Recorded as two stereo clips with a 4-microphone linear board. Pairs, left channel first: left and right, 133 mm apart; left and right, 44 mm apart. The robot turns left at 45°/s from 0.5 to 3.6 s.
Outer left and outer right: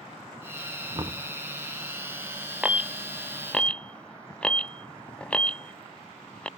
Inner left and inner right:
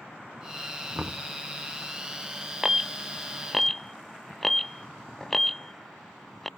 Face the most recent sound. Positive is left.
turn(degrees=10)  # may be behind; listen again after turning